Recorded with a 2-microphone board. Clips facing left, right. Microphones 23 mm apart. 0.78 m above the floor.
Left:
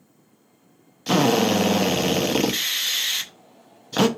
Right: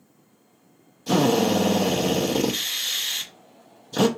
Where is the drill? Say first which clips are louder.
Left 1 dB; 55° left (ahead or behind), 0.6 m.